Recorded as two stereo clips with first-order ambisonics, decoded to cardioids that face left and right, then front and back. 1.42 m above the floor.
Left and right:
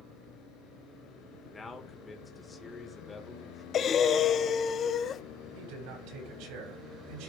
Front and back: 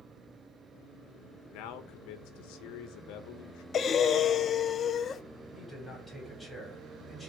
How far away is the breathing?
About 0.5 m.